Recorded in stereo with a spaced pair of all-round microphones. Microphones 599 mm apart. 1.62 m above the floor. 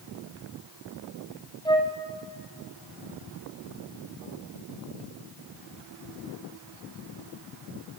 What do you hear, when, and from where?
1.6 s a flute: 10° left (ahead or behind), 1.1 m